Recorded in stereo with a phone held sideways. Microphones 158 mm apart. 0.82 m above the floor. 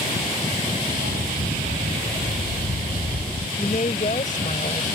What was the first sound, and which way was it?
A dog barking, 75° right (ahead or behind).